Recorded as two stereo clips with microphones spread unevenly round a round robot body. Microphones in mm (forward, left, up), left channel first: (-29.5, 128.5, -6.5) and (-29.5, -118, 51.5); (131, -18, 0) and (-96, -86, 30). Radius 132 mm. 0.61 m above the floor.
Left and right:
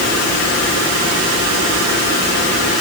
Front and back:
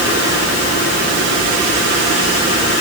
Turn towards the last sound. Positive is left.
No sound to turn to.